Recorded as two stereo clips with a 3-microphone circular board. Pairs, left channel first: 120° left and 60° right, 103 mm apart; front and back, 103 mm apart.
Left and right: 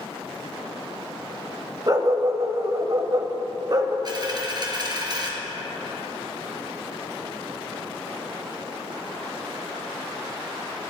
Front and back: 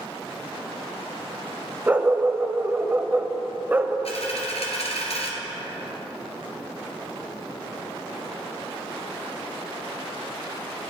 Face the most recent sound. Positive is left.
turn(degrees=-15)